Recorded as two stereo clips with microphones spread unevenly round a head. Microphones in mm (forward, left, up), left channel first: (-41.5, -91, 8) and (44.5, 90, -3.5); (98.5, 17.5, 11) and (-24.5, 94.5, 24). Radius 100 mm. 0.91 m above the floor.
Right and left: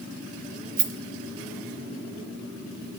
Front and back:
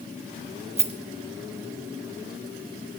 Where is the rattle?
105° left, 1.1 m.